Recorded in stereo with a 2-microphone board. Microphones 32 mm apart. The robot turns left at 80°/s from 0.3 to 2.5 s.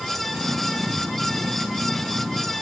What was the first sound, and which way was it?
Only background noise.